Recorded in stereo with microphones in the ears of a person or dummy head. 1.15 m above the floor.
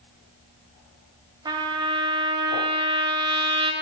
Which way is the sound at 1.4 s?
20° right (ahead or behind).